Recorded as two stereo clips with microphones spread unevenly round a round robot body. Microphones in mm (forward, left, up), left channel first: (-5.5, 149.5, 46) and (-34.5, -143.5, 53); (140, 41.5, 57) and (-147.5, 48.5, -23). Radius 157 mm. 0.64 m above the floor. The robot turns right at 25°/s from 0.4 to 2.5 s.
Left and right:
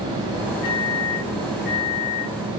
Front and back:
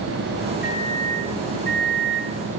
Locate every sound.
0.6 s a microwave: 65° left, 5.5 m; by 2.3 s 110° left, 5.5 m